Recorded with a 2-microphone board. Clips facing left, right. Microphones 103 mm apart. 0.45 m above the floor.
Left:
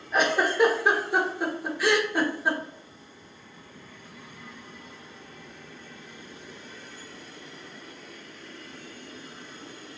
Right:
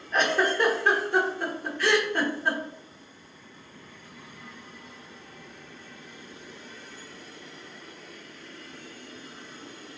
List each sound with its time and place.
0.1 s a giggle: 10° left (ahead or behind), 1.2 m